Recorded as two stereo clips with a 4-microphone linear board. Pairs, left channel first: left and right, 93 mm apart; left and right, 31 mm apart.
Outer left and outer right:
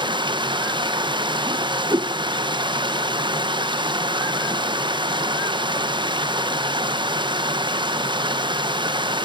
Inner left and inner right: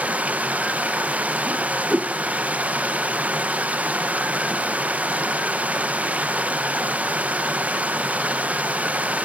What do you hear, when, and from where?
0.0 s running water: 55° right (ahead or behind), 1.0 m
1.5 s a whoosh: 45° right (ahead or behind), 0.6 m